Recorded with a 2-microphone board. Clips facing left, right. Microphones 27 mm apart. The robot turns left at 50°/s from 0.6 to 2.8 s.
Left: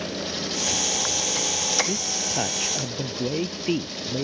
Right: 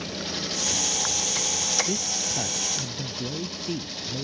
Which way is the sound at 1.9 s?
Straight behind.